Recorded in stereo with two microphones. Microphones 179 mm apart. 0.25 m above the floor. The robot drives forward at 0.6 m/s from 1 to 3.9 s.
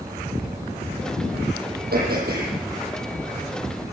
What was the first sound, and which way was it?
Throat clearing, 60° right (ahead or behind).